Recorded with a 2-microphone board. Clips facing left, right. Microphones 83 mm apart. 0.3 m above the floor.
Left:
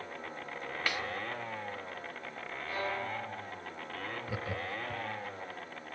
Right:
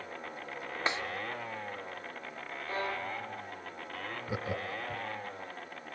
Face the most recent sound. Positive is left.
turn(degrees=-20)  # may be behind; listen again after turning